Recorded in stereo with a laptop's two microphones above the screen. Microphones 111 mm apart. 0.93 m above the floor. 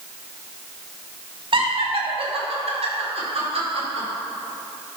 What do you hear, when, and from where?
1.5 s laughter: 50° right (ahead or behind), 1.6 m; by 4.1 s 75° right (ahead or behind), 4 m